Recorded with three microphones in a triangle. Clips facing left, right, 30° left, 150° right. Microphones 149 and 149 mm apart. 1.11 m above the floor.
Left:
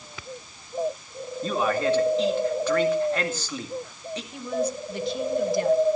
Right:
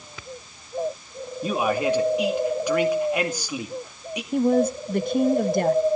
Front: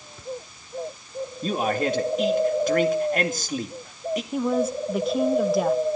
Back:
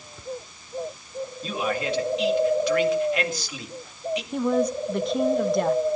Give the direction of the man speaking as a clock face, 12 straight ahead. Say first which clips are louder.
Right 1 dB, front 4 dB; 12 o'clock.